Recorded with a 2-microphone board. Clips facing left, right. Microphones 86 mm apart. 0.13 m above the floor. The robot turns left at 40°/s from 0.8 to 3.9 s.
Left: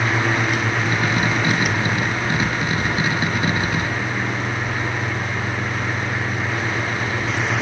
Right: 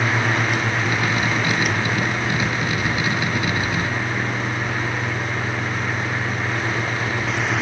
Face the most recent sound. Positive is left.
No sound to turn to.